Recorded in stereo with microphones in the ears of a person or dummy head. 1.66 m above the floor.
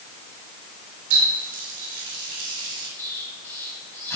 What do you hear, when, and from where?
1.1 s a running tap: 60° right (ahead or behind), 4 m
3.0 s an explosion: 15° left (ahead or behind), 4.5 m